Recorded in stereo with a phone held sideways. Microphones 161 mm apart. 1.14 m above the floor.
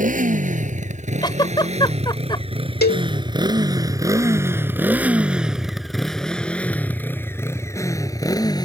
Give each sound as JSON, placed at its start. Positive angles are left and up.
{"t": 0.0, "sound": "a motorcycle", "side_deg": -55}
{"t": 1.2, "sound": "a giggle", "side_deg": 30}
{"t": 2.8, "sound": "a cowbell", "side_deg": 80}